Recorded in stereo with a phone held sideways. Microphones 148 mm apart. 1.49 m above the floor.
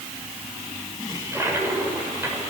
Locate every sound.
1.1 s a toilet flushing: 15° right (ahead or behind), 7 m